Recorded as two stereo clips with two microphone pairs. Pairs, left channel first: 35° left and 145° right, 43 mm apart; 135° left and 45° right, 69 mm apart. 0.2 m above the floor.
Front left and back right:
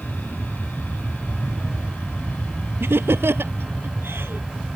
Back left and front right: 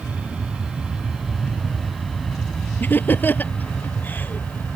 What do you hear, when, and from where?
0.0 s an aircraft: 20° left; by 4.8 s 80° left
2.8 s laughter: 165° right